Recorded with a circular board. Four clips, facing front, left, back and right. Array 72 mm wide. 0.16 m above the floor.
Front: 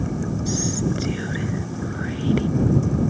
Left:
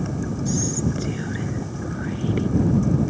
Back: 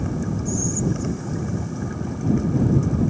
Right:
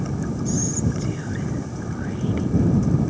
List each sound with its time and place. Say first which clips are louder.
0.5 s whispering: left 1 dB, front 1 dB; 15° left